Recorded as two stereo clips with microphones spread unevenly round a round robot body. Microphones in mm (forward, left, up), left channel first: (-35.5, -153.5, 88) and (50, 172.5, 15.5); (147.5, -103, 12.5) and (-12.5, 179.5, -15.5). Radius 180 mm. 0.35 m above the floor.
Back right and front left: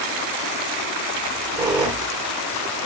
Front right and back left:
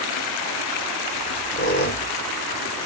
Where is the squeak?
Straight ahead, 0.7 m.